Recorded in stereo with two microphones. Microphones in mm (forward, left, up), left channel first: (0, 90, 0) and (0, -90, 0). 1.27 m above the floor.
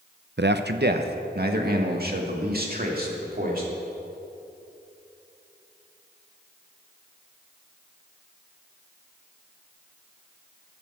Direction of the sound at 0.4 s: 70° right (ahead or behind).